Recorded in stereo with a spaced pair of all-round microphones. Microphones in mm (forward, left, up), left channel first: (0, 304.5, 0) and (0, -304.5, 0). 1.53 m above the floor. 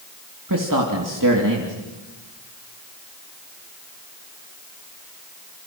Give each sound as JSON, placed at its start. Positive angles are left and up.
{"t": 0.5, "sound": "a man speaking", "side_deg": -30, "distance_m": 3.0}